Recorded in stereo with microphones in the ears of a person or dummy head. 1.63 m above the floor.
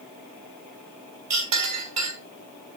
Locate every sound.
1.3 s a clink: 35° right (ahead or behind), 1.0 m